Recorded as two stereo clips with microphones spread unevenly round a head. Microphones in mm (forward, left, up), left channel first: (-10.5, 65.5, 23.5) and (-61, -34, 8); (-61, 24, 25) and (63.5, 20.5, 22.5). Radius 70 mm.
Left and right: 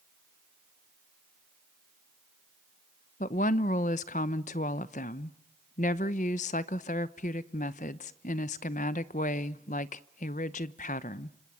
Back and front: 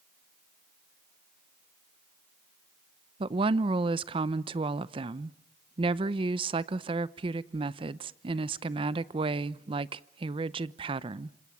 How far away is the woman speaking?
About 0.8 m.